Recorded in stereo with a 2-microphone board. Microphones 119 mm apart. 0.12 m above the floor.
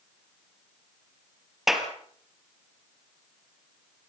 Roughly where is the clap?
Centre.